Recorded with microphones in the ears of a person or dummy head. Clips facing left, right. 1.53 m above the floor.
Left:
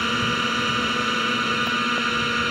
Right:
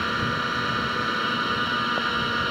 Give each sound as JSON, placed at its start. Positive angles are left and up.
{"t": 0.0, "sound": "a drone", "side_deg": 35}